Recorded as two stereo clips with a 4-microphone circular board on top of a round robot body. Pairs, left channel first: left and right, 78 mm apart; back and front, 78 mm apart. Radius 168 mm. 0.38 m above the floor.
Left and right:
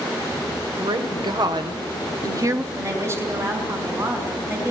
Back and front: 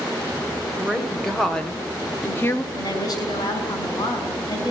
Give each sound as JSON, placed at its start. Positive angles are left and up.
{"t": 0.8, "sound": "a woman speaking", "azimuth_deg": -85, "distance_m": 3.0}
{"t": 2.7, "sound": "a woman speaking", "azimuth_deg": -145, "distance_m": 6.0}